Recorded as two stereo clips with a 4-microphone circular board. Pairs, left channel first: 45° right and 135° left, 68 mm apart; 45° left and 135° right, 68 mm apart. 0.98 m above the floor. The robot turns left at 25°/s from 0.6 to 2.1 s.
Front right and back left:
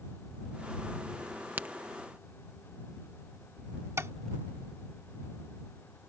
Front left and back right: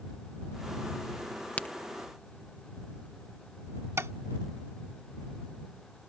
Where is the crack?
95° left; by 1.7 s 90° left.